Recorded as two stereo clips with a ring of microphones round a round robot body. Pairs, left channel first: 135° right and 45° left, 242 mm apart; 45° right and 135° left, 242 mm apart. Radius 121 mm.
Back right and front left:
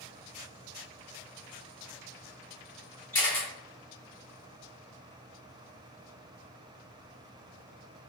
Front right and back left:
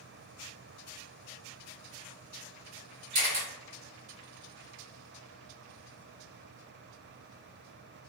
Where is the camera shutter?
150° left, 1.4 m.